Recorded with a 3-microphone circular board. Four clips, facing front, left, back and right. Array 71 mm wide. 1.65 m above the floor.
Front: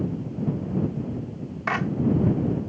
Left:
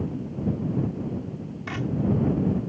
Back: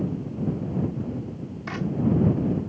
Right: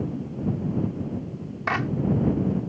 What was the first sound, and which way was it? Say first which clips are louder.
A clap: right 6 dB, front 5 dB; 50° right.